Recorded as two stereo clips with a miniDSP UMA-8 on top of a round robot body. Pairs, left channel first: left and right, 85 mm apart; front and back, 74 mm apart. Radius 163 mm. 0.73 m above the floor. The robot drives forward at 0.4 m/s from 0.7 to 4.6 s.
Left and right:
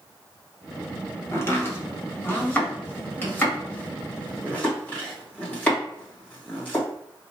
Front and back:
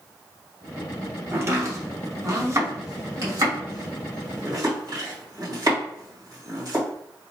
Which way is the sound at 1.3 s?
140° left.